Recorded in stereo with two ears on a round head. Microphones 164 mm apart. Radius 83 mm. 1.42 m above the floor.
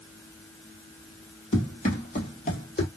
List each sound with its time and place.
1.5 s running footsteps: 40° left (ahead or behind), 1.8 m